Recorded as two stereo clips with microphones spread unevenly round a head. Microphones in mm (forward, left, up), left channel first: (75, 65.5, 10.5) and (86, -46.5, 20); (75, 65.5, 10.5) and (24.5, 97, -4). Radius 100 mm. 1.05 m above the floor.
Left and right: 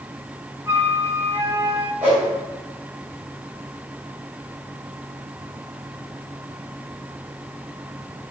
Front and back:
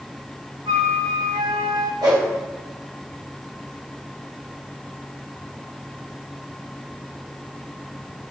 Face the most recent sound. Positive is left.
turn(degrees=-165)